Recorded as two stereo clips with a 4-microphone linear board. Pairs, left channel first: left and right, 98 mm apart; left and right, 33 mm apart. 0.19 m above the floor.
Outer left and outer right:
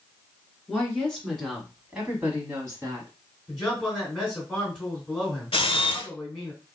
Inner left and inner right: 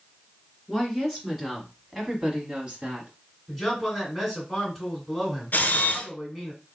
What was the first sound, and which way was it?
A woman speaking, 15° left (ahead or behind).